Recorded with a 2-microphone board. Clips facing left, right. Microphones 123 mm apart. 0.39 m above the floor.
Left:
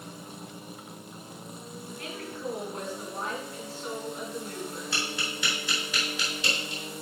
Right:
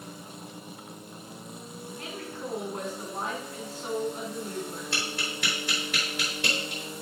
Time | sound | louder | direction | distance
2.0 | a woman speaking | left 1 dB | 40° right (ahead or behind) | 4 m
4.9 | tapping | even | 55° right (ahead or behind) | 4.5 m